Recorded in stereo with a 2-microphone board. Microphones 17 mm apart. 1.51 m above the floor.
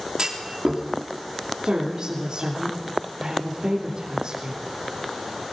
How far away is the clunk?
About 3.5 m.